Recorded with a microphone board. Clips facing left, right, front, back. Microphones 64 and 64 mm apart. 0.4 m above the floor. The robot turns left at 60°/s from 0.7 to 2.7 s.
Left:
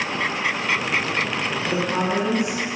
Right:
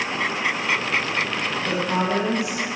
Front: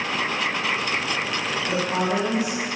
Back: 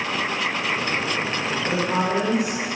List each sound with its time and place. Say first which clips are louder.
1.6 s a woman speaking: even, back 1 dB; 105° right, 2.0 m; by 2.6 s 165° right, 2.0 m